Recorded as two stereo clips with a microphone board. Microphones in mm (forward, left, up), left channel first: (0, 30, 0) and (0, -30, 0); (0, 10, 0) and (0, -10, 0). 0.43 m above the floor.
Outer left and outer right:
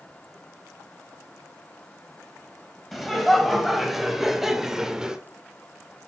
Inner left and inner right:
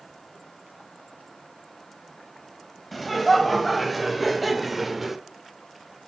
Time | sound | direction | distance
2.9 | laughter | centre (ahead or behind) | 2.5 m